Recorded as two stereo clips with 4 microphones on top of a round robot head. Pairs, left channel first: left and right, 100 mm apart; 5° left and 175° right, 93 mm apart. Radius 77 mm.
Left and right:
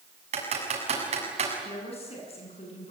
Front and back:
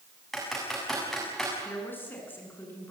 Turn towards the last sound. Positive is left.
turn(degrees=70)